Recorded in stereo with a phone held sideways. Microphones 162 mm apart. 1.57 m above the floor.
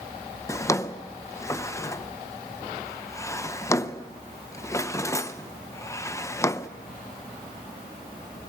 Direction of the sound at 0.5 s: 20° left (ahead or behind).